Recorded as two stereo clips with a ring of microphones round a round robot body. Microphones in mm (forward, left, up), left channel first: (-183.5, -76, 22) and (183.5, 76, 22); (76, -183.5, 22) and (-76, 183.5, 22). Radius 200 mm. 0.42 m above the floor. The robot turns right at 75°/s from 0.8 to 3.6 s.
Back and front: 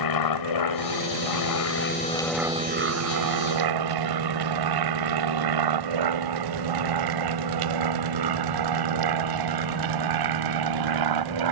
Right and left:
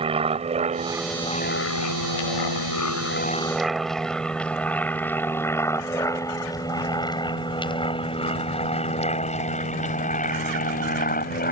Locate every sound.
0.0 s an aircraft: 175° right; by 11.5 s straight ahead